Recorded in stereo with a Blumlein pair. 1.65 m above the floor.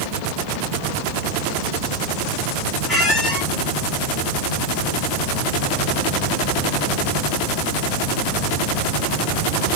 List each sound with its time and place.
2.9 s a squeak: 5° right, 1.8 m